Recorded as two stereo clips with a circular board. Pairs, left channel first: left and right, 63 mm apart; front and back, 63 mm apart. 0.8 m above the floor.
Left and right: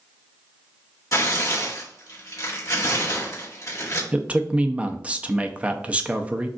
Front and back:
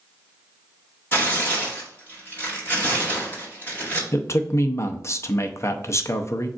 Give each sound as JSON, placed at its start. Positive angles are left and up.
{"t": 1.1, "sound": "tearing paper", "azimuth_deg": 55, "distance_m": 1.9}
{"t": 4.1, "sound": "a man speaking", "azimuth_deg": -25, "distance_m": 0.5}